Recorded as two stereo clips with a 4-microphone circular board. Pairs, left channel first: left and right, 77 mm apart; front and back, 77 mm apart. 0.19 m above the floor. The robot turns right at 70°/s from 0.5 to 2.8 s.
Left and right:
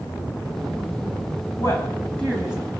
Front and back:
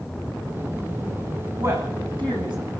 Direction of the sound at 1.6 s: 125° left.